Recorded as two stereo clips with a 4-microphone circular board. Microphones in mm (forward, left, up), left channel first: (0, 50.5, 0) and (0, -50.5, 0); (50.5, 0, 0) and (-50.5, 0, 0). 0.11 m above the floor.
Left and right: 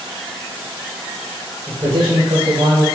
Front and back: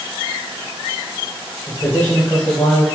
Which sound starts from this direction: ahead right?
A man speaking, at 1.7 s.